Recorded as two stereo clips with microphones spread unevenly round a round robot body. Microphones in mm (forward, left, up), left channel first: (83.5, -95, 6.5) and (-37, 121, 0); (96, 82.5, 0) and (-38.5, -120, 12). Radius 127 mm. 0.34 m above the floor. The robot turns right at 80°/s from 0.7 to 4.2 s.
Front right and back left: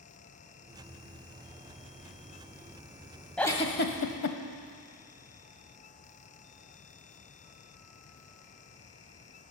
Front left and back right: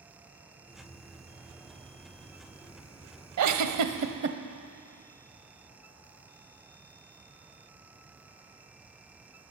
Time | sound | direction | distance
3.4 | a giggle | 150° right | 0.8 m